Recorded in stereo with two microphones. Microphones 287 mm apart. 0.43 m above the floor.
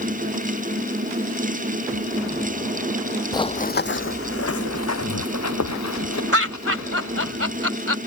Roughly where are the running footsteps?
Centre.